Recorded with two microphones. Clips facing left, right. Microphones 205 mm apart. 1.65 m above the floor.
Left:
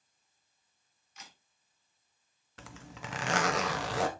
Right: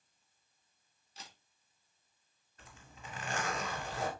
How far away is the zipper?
About 1.0 m.